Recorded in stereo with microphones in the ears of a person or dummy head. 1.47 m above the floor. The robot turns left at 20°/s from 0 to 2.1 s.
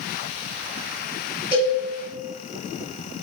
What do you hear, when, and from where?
1.5 s a cowbell: 30° left (ahead or behind), 1.8 m; by 1.8 s 35° left (ahead or behind), 1.8 m